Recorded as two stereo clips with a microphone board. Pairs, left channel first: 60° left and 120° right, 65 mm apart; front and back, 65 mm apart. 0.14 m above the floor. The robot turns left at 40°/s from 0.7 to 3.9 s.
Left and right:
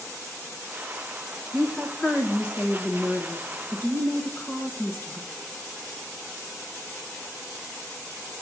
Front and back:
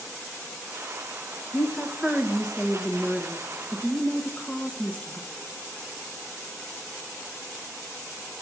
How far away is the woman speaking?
About 1.4 m.